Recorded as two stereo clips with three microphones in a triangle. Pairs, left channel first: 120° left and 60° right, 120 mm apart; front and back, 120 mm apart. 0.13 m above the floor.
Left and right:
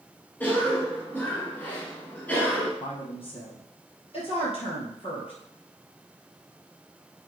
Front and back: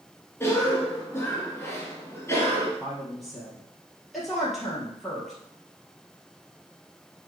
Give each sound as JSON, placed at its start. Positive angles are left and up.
{"t": 0.4, "sound": "a cough", "azimuth_deg": 55, "distance_m": 1.7}
{"t": 2.8, "sound": "a woman speaking", "azimuth_deg": 90, "distance_m": 3.0}